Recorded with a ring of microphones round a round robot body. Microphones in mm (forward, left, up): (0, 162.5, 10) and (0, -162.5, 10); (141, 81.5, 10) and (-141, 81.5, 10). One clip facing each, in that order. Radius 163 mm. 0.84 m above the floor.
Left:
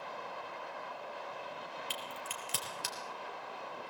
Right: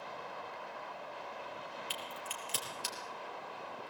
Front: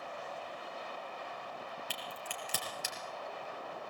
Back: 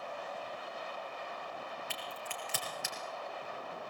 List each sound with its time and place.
1.9 s a crack: 50° left, 5 m